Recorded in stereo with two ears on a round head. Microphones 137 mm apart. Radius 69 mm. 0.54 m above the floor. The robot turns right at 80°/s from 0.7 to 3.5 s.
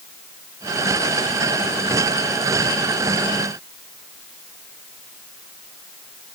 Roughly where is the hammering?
No hammering in this recording.